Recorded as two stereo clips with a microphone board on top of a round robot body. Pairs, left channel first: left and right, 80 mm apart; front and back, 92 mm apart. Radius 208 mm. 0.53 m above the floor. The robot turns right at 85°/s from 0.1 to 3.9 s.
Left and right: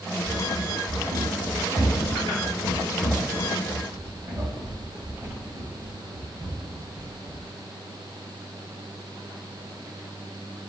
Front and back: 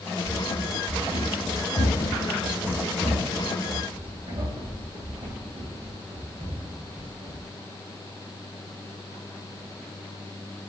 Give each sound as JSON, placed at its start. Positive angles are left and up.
{"t": 0.2, "sound": "running footsteps", "azimuth_deg": 180, "distance_m": 1.1}